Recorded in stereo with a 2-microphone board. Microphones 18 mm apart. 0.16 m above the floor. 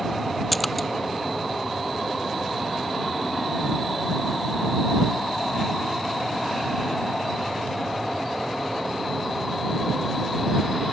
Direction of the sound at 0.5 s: 5° left (ahead or behind).